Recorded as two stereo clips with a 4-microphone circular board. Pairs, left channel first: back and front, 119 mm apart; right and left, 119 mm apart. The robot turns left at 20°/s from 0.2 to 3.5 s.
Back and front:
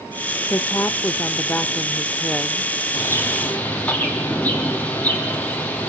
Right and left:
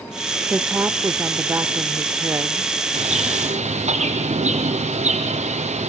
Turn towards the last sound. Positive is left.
turn(degrees=105)